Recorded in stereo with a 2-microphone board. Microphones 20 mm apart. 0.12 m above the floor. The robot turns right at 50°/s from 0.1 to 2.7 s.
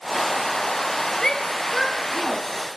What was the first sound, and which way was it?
A shout, 35° left (ahead or behind).